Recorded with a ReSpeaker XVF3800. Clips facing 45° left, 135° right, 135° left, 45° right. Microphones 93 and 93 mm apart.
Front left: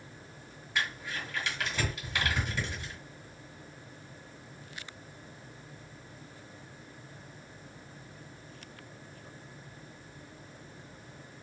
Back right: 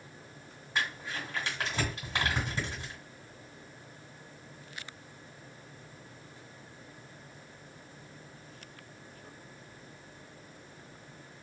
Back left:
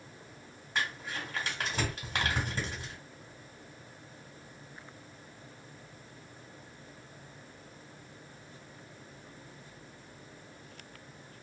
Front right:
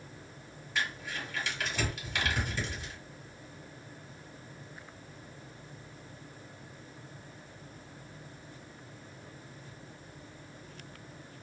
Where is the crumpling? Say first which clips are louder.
Even, even; 170° left, 1.7 m.